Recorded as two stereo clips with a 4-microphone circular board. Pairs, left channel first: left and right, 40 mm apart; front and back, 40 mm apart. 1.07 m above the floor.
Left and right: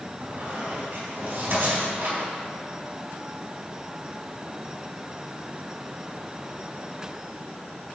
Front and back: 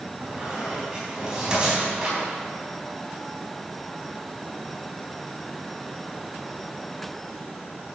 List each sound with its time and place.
0.2 s a squeak: 110° right, 3 m